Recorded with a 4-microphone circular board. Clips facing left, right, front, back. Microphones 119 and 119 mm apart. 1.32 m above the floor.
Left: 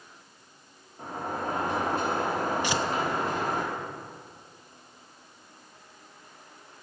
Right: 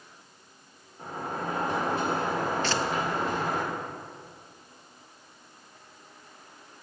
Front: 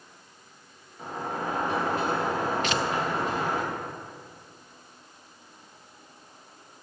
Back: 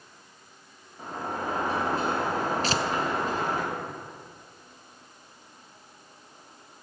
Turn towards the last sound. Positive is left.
turn(degrees=155)